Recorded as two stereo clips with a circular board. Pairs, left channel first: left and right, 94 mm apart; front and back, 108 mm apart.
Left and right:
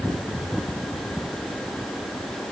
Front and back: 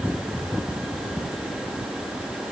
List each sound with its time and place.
Only background noise.